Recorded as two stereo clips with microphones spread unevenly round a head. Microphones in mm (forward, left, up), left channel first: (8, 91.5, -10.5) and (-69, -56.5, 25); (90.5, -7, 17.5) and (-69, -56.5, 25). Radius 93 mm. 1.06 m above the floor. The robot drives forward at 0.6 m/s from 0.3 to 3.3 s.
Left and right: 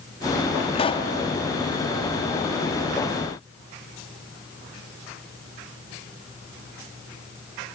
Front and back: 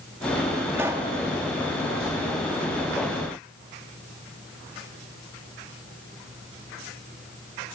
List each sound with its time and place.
0.7 s a pop: 120° left, 1.8 m; by 1.1 s 125° left, 2.0 m